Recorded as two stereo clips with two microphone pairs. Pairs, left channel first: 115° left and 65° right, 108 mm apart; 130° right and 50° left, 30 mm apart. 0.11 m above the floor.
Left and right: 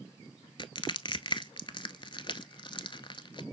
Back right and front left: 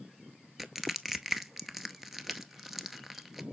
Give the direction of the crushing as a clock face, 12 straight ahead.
8 o'clock.